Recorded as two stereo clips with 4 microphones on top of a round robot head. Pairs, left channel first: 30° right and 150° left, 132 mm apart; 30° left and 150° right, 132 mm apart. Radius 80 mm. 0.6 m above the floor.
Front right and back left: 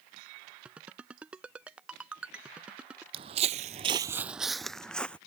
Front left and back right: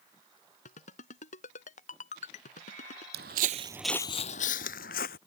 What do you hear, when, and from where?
0.7 s a ringtone: 70° left
3.1 s footsteps: 160° right; by 5.2 s 50° left